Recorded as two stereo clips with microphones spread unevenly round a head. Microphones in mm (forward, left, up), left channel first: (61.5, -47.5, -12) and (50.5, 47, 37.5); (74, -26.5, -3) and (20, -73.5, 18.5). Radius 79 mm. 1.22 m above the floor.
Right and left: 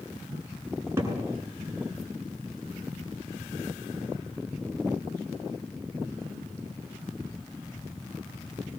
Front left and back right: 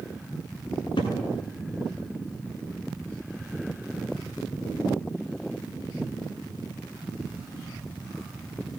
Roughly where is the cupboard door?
Ahead left.